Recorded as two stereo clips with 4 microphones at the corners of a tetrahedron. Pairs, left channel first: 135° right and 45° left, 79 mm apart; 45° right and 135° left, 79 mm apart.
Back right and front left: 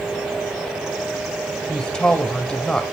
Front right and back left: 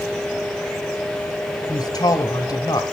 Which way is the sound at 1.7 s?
55° right.